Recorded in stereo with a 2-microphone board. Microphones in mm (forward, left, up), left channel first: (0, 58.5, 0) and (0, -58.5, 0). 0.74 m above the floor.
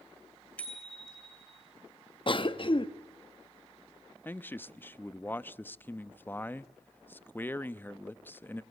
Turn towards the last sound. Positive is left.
turn(degrees=15)  # may be behind; listen again after turning